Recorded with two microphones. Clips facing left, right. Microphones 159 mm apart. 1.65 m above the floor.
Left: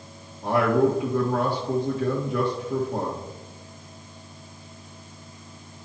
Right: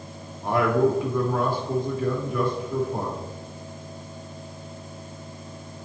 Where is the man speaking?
85° left, 1.8 m.